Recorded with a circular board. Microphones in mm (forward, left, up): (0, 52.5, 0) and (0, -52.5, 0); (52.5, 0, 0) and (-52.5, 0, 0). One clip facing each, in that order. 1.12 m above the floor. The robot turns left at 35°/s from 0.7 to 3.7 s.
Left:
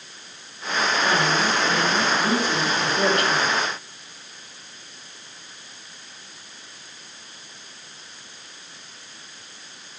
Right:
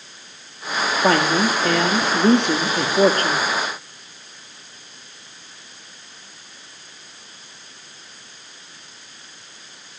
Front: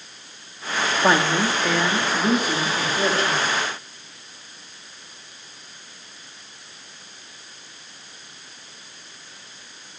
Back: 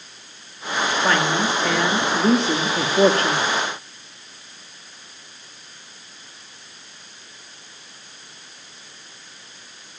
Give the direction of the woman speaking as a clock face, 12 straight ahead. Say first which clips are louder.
Right 7 dB, front 2 dB; 2 o'clock.